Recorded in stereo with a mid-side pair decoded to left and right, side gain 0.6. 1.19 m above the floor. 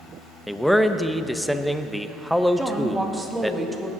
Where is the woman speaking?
20° right, 1.9 m.